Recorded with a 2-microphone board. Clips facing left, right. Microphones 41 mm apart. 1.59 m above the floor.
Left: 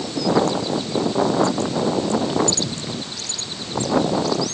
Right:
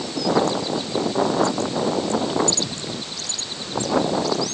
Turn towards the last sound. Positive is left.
No sound to turn to.